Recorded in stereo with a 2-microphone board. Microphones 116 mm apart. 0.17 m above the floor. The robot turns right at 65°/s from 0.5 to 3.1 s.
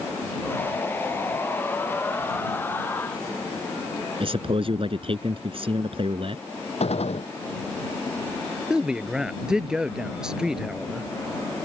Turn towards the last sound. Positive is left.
turn(degrees=-5)  # may be behind; listen again after turning